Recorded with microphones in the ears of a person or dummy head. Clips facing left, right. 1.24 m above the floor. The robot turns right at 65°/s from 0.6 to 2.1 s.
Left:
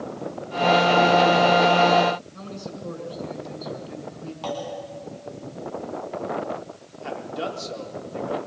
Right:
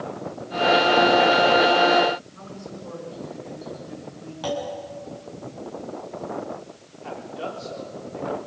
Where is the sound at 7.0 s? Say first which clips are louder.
Left 3 dB; 60° left (ahead or behind), 4 m.